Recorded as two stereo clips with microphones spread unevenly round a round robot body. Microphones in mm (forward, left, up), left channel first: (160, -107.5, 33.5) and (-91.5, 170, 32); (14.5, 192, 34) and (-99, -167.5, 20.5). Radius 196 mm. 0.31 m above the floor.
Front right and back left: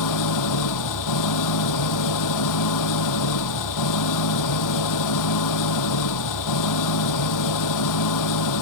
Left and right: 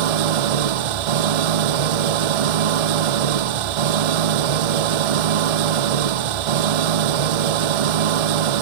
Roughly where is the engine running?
Right.